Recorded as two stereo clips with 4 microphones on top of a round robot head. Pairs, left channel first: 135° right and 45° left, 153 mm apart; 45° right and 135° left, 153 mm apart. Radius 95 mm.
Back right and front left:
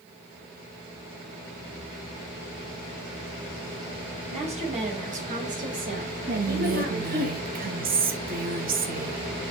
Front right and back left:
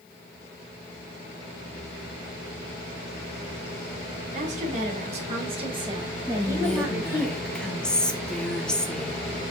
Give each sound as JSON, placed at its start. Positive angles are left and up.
{"t": 4.3, "sound": "a woman speaking", "azimuth_deg": 95, "distance_m": 3.0}
{"t": 6.3, "sound": "whispering", "azimuth_deg": 40, "distance_m": 1.4}